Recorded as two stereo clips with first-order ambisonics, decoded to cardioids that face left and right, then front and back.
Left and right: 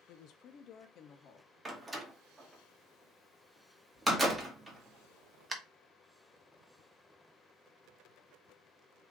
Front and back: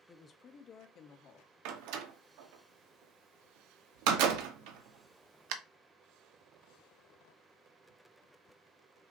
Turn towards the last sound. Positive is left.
turn(degrees=-170)